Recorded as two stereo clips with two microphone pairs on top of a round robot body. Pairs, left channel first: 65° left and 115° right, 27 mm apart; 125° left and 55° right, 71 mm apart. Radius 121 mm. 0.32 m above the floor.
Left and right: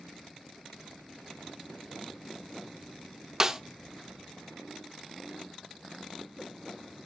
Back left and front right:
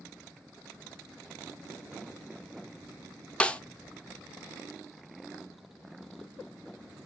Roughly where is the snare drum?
Behind.